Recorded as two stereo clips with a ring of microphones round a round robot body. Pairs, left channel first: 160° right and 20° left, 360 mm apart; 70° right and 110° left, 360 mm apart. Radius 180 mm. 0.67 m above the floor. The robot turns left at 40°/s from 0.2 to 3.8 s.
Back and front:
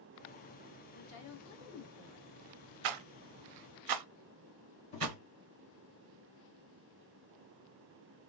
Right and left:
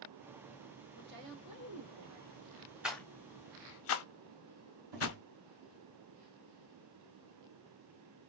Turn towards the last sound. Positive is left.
turn(degrees=130)